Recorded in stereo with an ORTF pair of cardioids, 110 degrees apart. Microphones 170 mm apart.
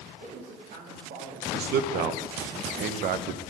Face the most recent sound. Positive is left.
turn(degrees=-65)